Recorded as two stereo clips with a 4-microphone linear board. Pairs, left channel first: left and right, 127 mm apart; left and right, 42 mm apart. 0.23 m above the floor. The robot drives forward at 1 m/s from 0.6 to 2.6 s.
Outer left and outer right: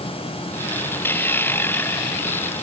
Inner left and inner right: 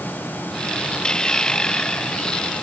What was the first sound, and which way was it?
Only background noise.